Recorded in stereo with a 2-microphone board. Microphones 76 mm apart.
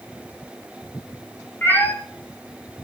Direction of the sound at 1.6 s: 25° left (ahead or behind).